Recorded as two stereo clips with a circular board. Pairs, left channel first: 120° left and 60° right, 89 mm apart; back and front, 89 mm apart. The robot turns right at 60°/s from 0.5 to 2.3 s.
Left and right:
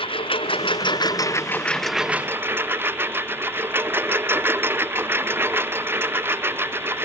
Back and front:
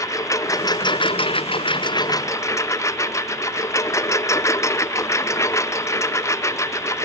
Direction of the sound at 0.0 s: 125° left.